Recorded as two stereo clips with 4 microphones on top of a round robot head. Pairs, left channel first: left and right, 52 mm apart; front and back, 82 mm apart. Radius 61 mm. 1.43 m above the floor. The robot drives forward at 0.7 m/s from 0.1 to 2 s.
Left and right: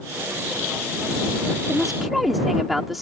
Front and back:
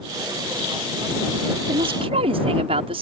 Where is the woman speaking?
Straight behind.